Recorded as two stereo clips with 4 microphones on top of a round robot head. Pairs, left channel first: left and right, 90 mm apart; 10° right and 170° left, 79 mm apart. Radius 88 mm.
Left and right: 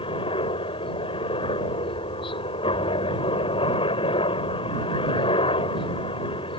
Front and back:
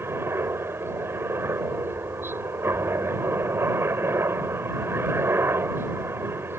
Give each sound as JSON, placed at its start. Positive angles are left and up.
{"t": 0.0, "sound": "a helicopter", "azimuth_deg": 110}